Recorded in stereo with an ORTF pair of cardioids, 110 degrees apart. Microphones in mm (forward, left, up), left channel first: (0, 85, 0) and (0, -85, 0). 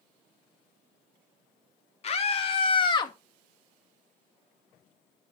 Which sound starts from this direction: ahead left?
A scream, at 2.0 s.